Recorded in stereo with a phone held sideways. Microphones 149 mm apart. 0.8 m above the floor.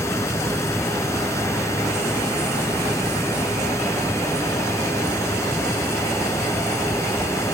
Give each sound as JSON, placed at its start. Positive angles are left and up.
{"t": 0.0, "sound": "a fan", "side_deg": 20}